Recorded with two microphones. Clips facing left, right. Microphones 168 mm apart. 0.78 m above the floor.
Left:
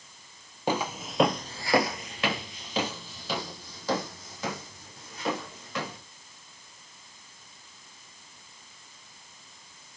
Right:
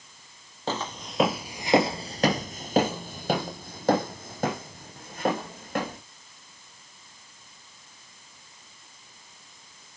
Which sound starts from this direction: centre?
Footsteps, at 0.7 s.